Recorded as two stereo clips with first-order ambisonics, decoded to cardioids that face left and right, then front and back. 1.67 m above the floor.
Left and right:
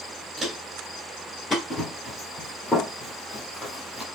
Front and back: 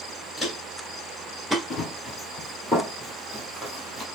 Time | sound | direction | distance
0.4 | footsteps | 95° right | 1.7 m
1.7 | running footsteps | 35° left | 1.7 m